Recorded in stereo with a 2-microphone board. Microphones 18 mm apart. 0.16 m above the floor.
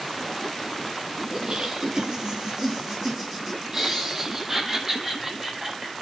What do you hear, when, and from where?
1.3 s laughter: 45° right (ahead or behind), 4 m; by 5.9 s 20° right (ahead or behind), 8 m